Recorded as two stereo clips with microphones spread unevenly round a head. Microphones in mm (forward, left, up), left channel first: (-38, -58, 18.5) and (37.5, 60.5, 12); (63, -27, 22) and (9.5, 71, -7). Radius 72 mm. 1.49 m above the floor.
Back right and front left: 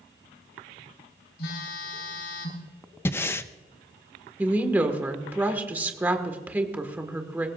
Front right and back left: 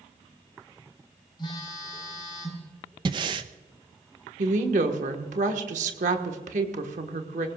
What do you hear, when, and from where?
1.4 s a phone buzzing: 125° right, 4 m
3.0 s breathing: 175° left, 0.6 m
4.4 s a woman speaking: 135° left, 1.6 m